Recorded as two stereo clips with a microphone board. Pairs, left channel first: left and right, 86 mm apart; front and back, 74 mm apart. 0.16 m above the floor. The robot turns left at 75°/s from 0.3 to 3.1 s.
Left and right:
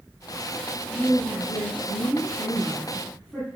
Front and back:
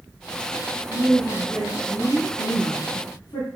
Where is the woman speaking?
160° left, 4.5 m; by 3.5 s 5° right, 4.5 m.